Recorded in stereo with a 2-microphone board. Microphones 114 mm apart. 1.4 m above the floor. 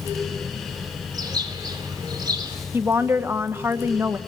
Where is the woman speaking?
20° right (ahead or behind), 1.1 m.